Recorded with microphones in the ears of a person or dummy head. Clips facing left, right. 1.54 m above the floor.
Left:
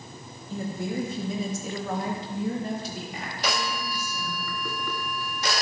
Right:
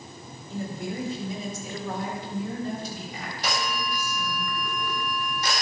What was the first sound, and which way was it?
A woman speaking, 70° left (ahead or behind).